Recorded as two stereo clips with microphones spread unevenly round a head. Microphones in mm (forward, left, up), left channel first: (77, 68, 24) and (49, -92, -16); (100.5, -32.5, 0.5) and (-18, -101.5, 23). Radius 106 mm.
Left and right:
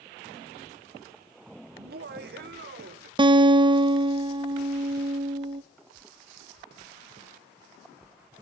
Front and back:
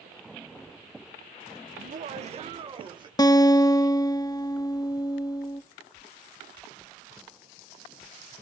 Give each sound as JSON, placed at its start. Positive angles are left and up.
{"t": 1.8, "sound": "laughter", "azimuth_deg": -125, "distance_m": 0.6}
{"t": 3.2, "sound": "a guitar", "azimuth_deg": -35, "distance_m": 1.0}